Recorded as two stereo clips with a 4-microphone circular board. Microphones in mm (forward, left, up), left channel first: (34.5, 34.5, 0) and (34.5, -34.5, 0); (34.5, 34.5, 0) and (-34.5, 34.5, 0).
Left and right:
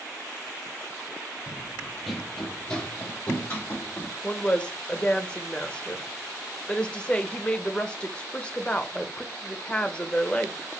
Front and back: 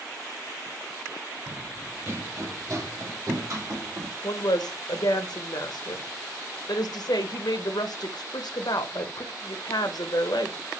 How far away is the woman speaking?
About 0.7 m.